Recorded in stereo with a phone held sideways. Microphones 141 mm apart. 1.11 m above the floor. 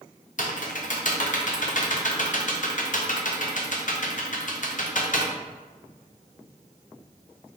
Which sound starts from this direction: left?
Typing on a keyboard, at 0.4 s.